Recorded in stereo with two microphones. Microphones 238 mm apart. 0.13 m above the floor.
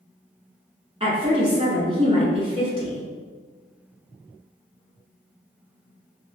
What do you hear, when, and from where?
1.0 s a woman speaking: 25° right (ahead or behind), 1.2 m